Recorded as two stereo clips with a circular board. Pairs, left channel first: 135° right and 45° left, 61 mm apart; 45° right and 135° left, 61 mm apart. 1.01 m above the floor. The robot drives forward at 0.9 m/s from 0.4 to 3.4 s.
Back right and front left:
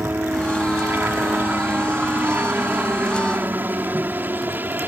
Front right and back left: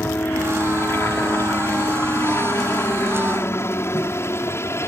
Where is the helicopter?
5° right; by 4.9 s 10° right.